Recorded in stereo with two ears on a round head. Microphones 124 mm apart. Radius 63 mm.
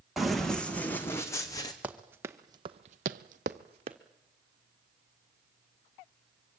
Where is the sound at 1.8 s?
10° right (ahead or behind), 2.0 m; by 4.0 s 35° right (ahead or behind), 1.7 m.